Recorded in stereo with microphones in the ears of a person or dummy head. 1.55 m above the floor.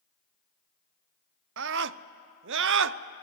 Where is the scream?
65° right (ahead or behind), 0.6 m.